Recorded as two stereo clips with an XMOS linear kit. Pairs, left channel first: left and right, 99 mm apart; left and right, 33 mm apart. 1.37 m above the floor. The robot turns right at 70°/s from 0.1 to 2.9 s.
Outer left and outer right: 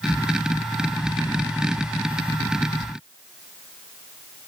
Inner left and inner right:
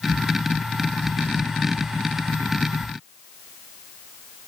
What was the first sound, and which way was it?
Only background noise.